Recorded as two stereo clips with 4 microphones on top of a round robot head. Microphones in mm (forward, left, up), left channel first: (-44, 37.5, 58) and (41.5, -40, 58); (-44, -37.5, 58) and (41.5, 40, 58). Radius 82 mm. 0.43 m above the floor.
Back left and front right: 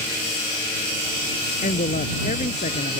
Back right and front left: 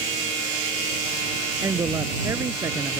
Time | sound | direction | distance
1.6 | a woman speaking | 110° left | ?